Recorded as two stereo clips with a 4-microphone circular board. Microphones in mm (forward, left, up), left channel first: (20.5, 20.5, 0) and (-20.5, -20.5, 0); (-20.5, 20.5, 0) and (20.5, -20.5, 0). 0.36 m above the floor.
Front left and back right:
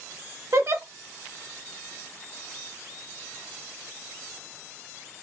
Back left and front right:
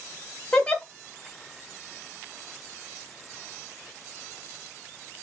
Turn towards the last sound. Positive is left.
turn(degrees=-155)